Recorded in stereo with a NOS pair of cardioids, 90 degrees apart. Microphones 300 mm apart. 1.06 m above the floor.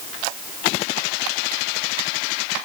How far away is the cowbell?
No cowbell in this recording.